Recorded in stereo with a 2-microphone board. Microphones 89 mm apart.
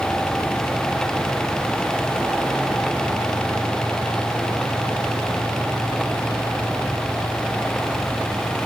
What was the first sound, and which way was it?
Only background noise.